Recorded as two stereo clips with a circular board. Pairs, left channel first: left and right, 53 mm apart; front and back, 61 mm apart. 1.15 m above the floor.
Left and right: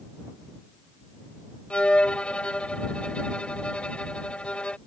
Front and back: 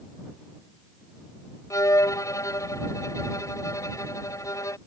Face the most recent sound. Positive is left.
turn(degrees=25)